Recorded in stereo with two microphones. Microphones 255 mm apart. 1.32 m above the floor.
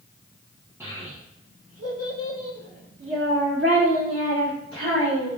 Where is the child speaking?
10° right (ahead or behind), 0.6 m; by 5.4 s 50° right (ahead or behind), 3.5 m.